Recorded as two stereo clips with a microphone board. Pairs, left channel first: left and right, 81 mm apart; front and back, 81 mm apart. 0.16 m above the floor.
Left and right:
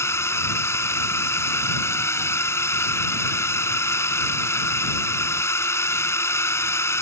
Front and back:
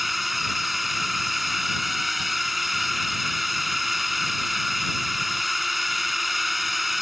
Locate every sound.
0.0 s a drone: 90° left